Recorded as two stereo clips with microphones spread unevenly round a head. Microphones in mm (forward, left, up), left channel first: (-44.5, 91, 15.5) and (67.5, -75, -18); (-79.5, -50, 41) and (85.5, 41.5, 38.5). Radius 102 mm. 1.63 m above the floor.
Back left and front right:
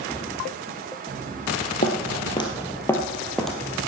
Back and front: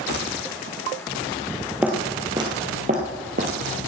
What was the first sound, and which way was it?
Footsteps, 110° left.